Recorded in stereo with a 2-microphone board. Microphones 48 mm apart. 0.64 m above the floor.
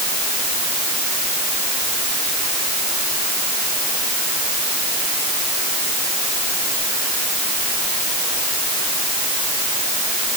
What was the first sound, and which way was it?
Only background noise.